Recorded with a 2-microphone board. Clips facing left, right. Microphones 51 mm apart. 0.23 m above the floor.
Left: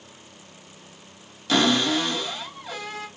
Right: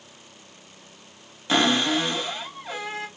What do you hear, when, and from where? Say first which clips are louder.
1.5 s a cupboard door: even; 20° right (ahead or behind), 1.0 m